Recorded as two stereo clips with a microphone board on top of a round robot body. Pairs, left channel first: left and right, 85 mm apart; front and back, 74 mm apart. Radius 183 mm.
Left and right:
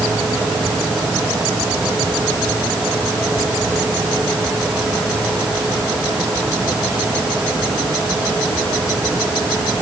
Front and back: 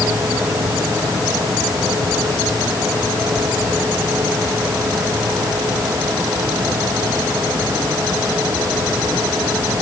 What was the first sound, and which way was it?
Only background noise.